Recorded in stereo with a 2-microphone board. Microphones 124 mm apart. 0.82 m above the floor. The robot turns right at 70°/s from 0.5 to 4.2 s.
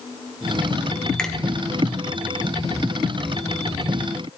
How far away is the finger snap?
About 1.0 m.